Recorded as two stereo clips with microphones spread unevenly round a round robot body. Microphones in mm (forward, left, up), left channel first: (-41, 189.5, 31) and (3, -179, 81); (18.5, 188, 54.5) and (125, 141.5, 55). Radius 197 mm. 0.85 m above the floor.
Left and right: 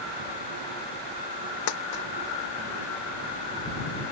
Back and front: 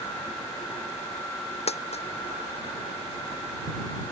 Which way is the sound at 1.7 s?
130° left.